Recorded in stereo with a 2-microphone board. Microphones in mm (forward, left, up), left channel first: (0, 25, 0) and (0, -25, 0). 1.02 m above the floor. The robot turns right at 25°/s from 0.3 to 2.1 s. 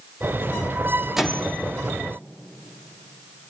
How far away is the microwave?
About 1.4 m.